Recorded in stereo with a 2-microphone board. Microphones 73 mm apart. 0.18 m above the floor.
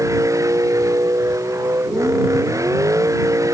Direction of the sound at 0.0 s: 45° right (ahead or behind).